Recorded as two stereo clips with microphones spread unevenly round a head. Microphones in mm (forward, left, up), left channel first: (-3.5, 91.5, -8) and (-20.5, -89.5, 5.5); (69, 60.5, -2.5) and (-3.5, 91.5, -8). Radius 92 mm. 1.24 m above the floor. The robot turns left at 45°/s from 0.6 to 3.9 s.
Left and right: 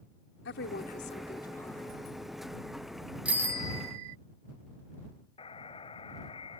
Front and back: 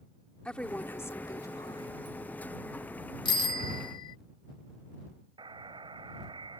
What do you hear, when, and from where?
0.5 s a woman speaking: 50° left; by 2.0 s 10° right
3.2 s a bicycle bell: 15° right; by 4.2 s 40° right
5.4 s a buzzer: 145° left